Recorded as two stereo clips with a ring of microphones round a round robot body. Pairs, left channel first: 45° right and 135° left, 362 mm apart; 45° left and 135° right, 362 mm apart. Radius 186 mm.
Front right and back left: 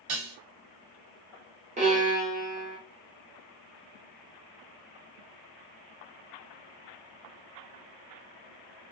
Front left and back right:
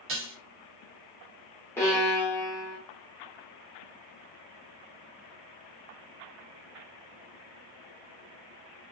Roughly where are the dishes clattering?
Behind.